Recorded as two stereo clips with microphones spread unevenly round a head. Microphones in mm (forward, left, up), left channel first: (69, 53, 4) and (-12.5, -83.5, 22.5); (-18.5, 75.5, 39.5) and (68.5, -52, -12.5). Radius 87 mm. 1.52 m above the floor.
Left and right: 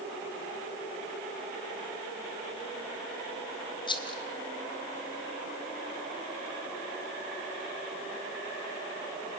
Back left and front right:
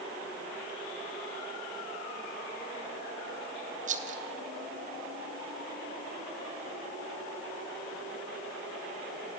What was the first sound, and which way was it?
A rattle, 5° right.